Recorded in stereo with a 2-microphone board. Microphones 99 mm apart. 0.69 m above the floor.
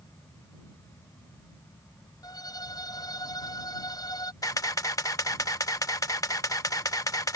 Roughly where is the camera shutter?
Left.